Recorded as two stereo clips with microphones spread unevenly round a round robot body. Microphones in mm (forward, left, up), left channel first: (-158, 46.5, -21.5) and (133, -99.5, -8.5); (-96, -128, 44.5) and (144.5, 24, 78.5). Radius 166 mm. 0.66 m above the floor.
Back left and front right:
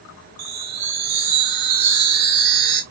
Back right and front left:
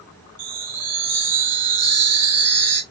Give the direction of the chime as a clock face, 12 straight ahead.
12 o'clock.